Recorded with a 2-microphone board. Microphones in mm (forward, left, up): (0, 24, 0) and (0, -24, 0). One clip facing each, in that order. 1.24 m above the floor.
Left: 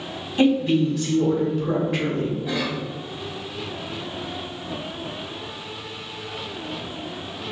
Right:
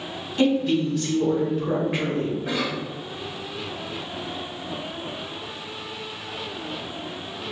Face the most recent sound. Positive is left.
turn(degrees=-80)